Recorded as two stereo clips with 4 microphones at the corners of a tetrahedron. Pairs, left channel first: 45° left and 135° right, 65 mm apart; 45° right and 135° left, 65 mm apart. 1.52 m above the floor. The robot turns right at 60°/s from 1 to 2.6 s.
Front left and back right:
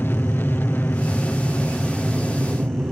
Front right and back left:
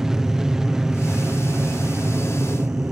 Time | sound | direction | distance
0.0 | an aircraft | 60° left | ?